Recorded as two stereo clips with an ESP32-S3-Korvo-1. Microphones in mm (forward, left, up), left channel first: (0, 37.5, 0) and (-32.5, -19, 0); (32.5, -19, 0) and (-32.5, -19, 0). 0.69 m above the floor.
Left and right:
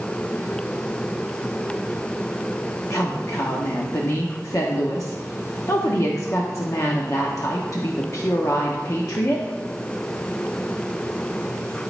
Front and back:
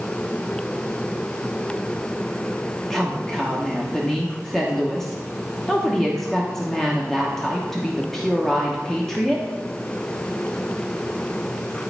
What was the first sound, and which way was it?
A woman speaking, 80° left.